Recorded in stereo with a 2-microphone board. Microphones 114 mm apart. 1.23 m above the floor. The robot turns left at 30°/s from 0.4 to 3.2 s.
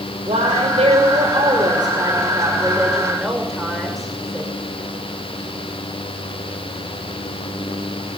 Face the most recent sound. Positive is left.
turn(degrees=175)